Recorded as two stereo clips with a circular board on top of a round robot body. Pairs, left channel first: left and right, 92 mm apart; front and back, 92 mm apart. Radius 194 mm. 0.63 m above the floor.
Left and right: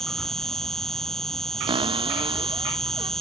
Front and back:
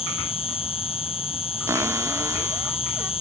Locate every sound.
0.0 s an insect: 5° left
1.7 s a cupboard door: 120° right